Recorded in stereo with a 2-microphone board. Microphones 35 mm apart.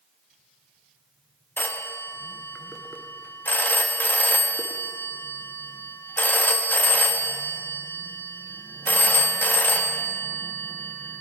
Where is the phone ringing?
65° left (ahead or behind), 0.9 m.